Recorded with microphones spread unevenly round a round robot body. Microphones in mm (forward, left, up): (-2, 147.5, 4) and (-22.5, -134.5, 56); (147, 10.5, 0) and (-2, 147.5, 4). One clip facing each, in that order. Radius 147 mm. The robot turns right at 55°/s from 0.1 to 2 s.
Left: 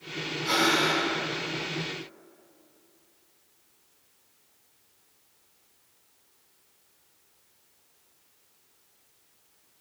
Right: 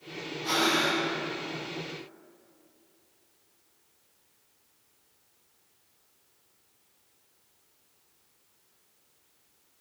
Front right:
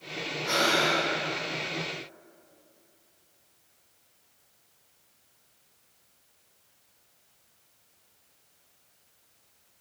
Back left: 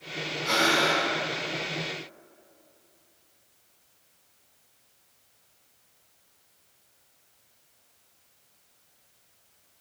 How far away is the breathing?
About 1.7 m.